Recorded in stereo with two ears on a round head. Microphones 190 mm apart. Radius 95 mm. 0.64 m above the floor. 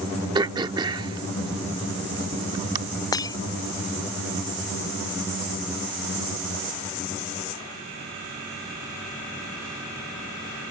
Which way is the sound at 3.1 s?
20° left (ahead or behind).